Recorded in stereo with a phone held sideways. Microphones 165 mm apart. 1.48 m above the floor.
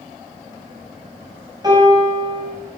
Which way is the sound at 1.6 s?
25° right (ahead or behind).